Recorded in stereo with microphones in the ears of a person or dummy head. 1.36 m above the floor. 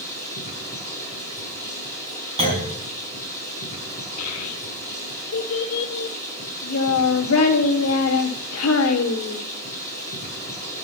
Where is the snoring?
No snoring in this recording.